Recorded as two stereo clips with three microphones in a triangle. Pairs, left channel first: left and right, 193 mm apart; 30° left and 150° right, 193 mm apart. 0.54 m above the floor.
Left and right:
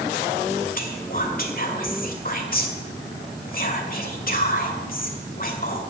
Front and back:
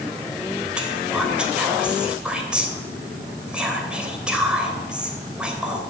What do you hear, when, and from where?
0.8 s whispering: 125° left, 2.5 m